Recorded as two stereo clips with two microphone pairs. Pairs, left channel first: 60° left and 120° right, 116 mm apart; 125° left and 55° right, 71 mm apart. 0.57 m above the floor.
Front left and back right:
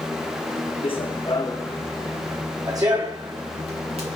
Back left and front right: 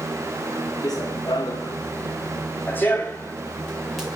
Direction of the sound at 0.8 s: 100° left.